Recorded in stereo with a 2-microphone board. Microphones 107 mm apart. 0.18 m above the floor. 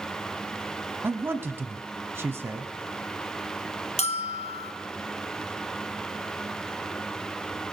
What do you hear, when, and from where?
1.0 s a man speaking: 20° right (ahead or behind), 1.0 m
4.0 s a bell: 80° left, 1.3 m